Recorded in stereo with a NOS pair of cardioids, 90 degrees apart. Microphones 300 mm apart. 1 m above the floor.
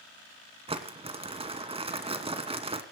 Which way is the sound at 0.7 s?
20° right.